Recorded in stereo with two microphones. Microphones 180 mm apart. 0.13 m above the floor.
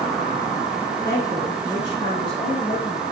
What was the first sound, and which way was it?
A woman speaking, 20° left (ahead or behind).